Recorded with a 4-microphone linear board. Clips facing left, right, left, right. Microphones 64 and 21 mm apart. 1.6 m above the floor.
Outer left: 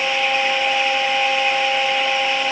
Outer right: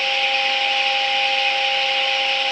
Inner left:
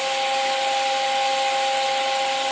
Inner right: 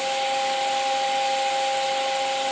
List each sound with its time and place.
Only background noise.